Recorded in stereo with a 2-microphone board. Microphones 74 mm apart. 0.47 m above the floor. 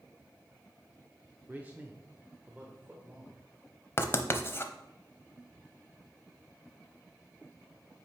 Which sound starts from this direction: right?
A man speaking, at 1.5 s.